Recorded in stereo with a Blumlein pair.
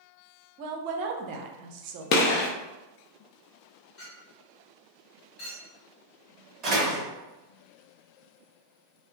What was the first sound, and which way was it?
A woman speaking, 45° right.